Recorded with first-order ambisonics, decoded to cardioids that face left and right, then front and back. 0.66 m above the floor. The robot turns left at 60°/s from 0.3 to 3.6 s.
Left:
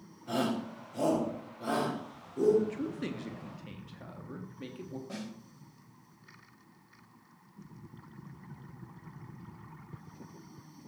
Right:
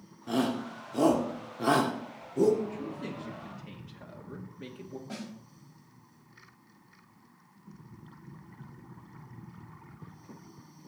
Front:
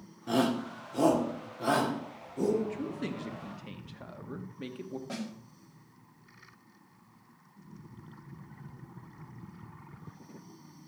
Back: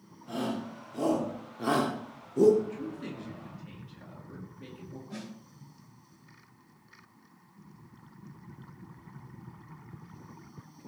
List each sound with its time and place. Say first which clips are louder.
0.3 s a shout: right 2 dB, front 6 dB; 30° right, 1.6 m; by 2.5 s 160° right, 1.6 m
2.6 s a man speaking: left 2 dB, front 2 dB; 70° left, 1.3 m; by 5.0 s 10° left, 1.3 m
5.1 s a snare drum: right 3 dB, front 2 dB; straight ahead, 4 m